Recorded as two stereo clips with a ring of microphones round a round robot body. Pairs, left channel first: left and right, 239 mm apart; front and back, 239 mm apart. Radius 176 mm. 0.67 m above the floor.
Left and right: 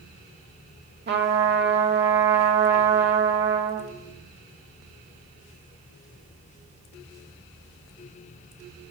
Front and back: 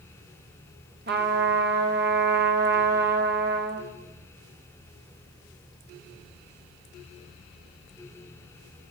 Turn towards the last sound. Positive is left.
turn(degrees=-135)